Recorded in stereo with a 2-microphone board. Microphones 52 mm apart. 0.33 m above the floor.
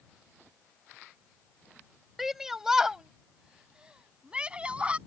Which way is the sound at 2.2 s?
5° right (ahead or behind).